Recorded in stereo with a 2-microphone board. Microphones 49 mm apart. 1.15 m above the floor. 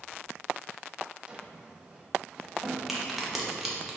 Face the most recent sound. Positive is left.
turn(degrees=-5)  # may be behind; listen again after turning